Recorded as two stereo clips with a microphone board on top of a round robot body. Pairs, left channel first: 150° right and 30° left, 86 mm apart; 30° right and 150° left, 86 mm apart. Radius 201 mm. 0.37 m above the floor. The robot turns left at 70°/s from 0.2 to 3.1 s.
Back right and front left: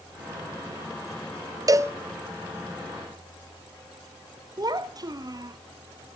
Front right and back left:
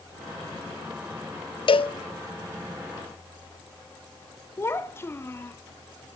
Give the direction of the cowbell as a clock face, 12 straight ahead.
1 o'clock.